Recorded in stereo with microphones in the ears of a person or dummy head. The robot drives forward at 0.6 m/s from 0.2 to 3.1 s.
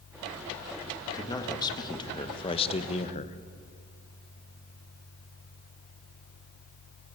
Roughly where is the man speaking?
Centre.